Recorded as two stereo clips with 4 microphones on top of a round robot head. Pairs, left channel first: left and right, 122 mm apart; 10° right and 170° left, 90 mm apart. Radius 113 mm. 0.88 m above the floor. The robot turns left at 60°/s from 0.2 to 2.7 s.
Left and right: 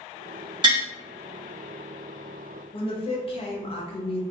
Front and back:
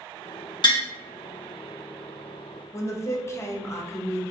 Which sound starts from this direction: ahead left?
A woman speaking, at 2.7 s.